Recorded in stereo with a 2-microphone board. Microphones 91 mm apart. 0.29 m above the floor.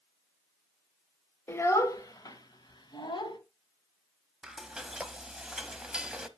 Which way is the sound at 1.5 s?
25° left (ahead or behind).